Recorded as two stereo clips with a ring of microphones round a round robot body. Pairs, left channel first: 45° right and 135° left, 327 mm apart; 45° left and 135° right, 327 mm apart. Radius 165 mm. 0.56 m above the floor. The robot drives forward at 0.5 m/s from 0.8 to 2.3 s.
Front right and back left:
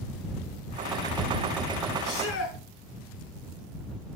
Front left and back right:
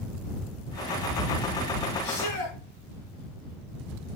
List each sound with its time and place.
2.0 s a shout: 5° left, 7 m